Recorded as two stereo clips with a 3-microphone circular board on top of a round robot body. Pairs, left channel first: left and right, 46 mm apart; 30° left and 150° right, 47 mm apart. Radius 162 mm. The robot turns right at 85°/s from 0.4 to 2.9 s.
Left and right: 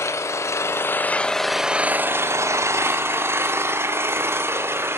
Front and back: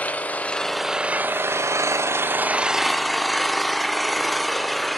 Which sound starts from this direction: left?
An engine running, at 0.0 s.